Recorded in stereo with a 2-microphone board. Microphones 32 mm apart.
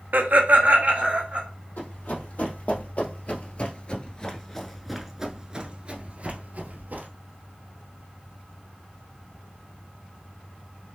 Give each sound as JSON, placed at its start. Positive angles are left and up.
{"t": 0.1, "sound": "laughter", "side_deg": -60, "distance_m": 0.8}
{"t": 1.8, "sound": "running footsteps", "side_deg": 60, "distance_m": 1.8}